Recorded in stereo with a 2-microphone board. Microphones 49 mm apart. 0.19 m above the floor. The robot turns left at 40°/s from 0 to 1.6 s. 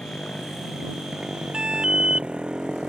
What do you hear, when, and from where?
0.0 s a motorcycle: 25° left (ahead or behind); by 2.9 s 15° right (ahead or behind)
1.5 s an alarm: 20° right (ahead or behind)